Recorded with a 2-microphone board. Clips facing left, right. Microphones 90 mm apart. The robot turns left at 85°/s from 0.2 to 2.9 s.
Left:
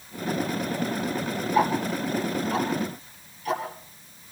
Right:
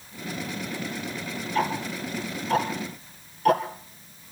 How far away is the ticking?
About 2.5 m.